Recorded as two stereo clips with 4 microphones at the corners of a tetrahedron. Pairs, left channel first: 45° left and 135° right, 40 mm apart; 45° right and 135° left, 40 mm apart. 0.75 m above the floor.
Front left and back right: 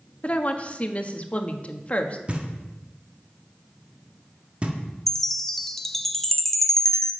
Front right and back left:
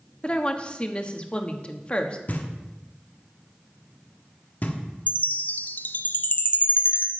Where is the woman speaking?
5° left, 1.2 m.